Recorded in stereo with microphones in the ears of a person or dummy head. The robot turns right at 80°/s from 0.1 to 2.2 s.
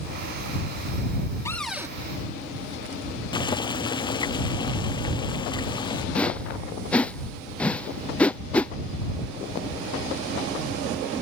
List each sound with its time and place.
1.4 s a cupboard door: 165° left; by 1.9 s 155° right
3.3 s boiling: 20° left (ahead or behind)
6.2 s a whoosh: 10° left (ahead or behind)